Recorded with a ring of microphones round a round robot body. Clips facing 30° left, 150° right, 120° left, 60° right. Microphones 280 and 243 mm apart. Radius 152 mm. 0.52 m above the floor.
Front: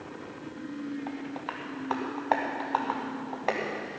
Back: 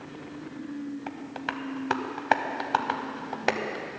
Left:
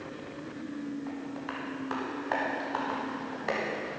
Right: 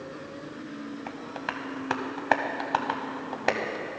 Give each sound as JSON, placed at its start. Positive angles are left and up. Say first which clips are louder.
{"t": 1.1, "sound": "tapping", "louder": "even, left 1 dB", "azimuth_deg": -100, "distance_m": 0.7}